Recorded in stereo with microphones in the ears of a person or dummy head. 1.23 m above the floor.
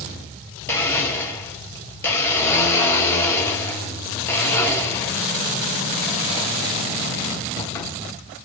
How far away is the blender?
About 1.7 m.